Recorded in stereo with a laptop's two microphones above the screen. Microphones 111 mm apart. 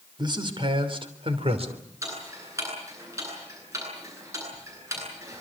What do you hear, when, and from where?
0.2 s a man speaking: 40° right (ahead or behind), 3 m; by 1.8 s 60° right (ahead or behind), 3 m
2.0 s ticking: 25° right (ahead or behind), 9.5 m